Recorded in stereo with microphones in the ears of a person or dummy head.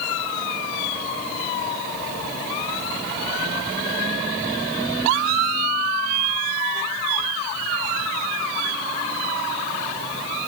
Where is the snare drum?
I don't hear a snare drum.